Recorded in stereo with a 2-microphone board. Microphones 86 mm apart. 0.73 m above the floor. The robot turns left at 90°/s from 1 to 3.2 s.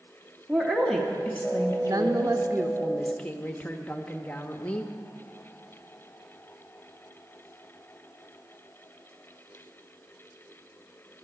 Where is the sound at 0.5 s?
175° left, 1.1 m; by 2.4 s 50° left, 1.1 m.